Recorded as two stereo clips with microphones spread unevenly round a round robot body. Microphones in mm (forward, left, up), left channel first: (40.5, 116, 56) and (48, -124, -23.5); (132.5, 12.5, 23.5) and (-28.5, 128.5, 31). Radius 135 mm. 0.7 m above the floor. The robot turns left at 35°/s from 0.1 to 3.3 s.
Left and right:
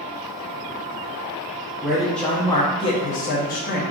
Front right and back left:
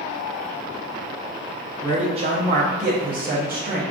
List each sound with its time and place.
1.8 s a man speaking: 150° right, 0.7 m; by 3.8 s 155° left, 0.7 m